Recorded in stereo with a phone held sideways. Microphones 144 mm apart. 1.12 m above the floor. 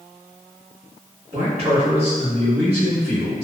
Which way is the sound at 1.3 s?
35° right (ahead or behind).